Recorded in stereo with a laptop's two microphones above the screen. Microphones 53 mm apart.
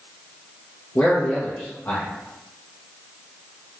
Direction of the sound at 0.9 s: 40° left (ahead or behind).